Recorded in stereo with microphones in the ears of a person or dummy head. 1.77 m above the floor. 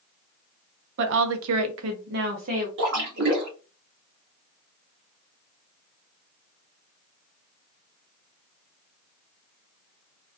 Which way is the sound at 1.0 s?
55° right (ahead or behind).